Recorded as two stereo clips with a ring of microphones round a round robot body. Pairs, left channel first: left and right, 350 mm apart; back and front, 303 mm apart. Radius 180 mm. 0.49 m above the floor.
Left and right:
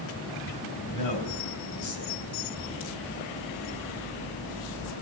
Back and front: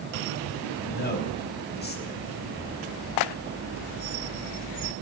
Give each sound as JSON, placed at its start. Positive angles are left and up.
{"t": 0.8, "sound": "a man speaking", "azimuth_deg": 125, "distance_m": 4.0}